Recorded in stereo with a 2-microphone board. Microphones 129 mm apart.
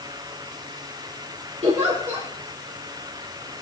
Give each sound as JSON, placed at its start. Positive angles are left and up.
{"t": 1.6, "sound": "a giggle", "side_deg": -60, "distance_m": 5.0}